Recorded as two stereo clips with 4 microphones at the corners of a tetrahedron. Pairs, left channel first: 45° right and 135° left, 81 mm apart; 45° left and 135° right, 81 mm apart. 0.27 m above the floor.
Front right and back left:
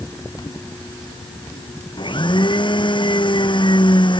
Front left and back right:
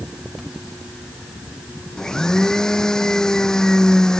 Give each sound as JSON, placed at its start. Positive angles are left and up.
{"t": 2.0, "sound": "a blender", "azimuth_deg": -40}